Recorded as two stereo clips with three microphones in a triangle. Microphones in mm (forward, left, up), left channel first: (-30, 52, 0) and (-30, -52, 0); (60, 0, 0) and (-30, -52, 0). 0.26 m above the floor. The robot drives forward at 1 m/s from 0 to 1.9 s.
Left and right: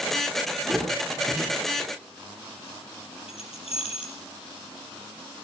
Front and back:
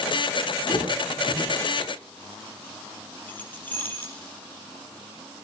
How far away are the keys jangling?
About 4 m.